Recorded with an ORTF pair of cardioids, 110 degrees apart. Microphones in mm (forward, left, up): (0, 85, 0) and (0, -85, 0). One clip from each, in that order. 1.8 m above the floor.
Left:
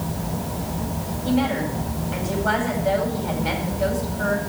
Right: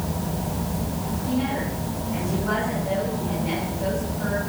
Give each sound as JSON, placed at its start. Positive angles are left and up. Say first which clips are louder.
{"t": 1.2, "sound": "a woman speaking", "louder": "left 4 dB", "azimuth_deg": 65, "distance_m": 8.0}